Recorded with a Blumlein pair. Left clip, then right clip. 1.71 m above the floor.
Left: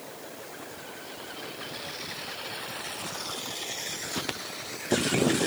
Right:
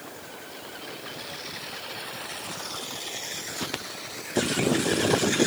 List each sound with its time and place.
Only background noise.